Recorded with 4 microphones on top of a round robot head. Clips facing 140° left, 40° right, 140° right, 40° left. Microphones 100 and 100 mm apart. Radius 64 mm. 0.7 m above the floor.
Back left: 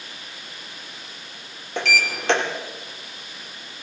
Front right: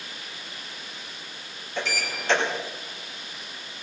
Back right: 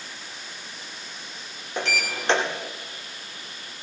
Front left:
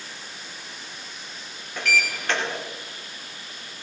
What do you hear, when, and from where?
1.8 s a sliding door: 160° left, 2.5 m